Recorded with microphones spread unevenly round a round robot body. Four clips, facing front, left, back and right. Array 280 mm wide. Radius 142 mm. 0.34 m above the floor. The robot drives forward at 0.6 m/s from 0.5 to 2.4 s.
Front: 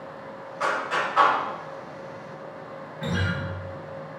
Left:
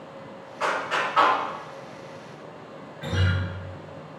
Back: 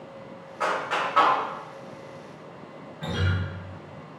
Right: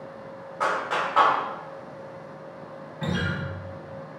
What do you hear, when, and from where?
0.6 s a clap: 95° right, 1.4 m; by 1.4 s 115° right, 1.5 m
3.0 s a guitar: 70° right, 1.1 m